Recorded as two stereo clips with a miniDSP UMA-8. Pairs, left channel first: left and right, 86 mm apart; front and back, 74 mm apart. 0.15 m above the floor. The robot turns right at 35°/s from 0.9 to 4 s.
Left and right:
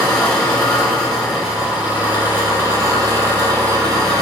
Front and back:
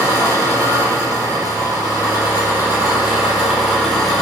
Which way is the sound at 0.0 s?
175° left.